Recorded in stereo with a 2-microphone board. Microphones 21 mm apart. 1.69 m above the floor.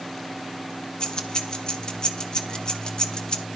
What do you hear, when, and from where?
1.0 s keys jangling: 40° left (ahead or behind), 1.1 m